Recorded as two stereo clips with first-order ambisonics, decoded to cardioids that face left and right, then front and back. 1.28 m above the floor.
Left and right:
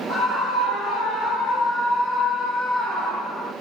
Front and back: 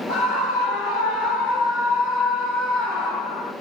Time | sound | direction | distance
0.1 | a scream | 15° left | 9.5 m